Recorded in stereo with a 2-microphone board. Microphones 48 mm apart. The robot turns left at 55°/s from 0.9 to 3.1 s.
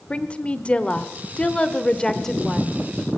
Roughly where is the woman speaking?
Left.